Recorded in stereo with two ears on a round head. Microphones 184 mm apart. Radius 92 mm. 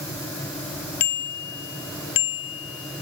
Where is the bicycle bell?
50° left (ahead or behind); by 3.0 s 70° left (ahead or behind).